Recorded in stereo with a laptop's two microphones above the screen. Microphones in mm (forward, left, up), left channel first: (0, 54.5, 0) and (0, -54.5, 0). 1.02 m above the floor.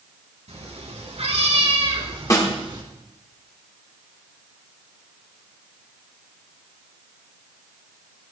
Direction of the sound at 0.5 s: 80° right.